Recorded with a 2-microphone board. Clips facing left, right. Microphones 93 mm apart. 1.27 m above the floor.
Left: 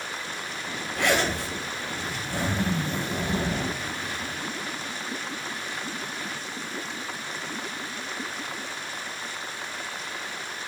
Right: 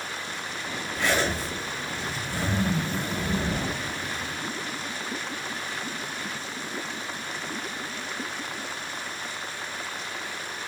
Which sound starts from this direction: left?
A zipper, at 0.9 s.